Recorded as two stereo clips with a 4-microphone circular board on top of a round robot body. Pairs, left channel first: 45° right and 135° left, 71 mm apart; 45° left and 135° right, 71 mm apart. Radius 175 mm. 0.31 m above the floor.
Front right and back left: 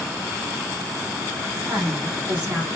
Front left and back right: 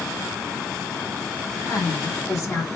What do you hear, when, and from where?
1.6 s a woman speaking: 60° left, 1.9 m; by 2.8 s 85° left, 1.2 m